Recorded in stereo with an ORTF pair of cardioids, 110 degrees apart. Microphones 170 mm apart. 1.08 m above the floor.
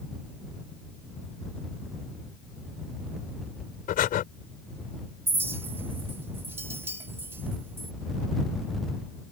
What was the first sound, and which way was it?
Breathing, 60° left.